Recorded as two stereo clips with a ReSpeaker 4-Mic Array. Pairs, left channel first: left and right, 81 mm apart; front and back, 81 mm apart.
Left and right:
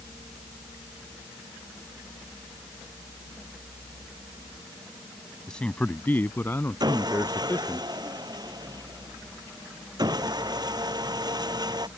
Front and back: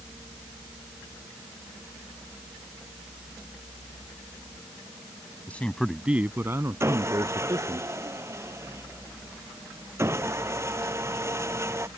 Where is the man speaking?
25° left; by 7.8 s 150° left.